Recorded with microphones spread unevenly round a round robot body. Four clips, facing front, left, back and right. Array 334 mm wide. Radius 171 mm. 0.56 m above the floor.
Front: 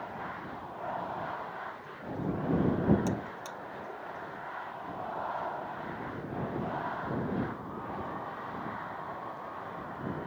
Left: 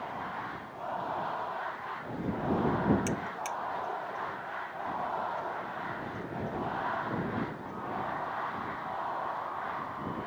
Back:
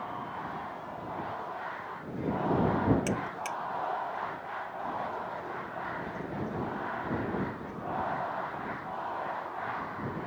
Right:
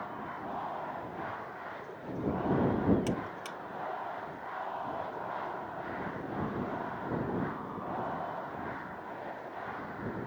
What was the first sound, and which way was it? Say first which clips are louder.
A buzzer: left 1 dB, back 3 dB; 170° right.